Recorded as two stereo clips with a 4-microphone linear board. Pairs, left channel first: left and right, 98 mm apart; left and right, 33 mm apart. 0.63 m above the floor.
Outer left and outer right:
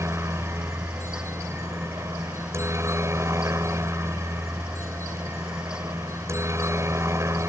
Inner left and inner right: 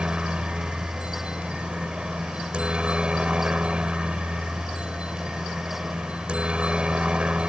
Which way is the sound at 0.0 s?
30° right (ahead or behind).